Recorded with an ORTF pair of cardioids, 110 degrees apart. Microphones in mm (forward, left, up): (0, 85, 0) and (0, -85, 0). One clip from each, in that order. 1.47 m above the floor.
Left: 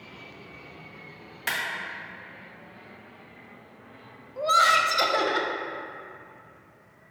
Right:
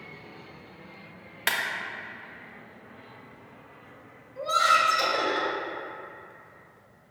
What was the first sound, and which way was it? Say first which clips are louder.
A clap: right 2 dB; 30° right.